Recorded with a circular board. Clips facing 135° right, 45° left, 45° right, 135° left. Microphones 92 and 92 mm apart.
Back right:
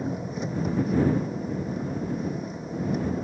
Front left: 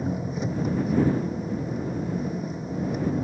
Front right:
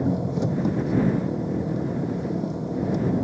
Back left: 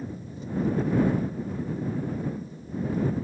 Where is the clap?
No clap in this recording.